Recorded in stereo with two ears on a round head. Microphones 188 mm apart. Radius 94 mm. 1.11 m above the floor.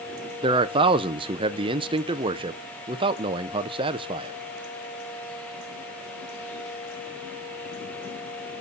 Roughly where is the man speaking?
Right.